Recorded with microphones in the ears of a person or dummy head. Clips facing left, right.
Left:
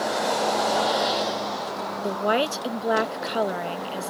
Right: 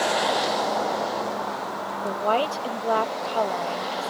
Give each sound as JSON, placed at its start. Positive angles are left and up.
{"t": 2.0, "sound": "a woman speaking", "side_deg": 20}